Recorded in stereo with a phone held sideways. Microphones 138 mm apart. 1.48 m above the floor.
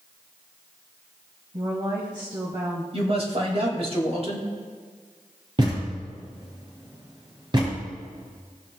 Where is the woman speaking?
35° right (ahead or behind), 1.4 m.